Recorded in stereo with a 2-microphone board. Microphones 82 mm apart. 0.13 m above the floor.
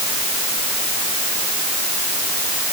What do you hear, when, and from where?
Only background noise.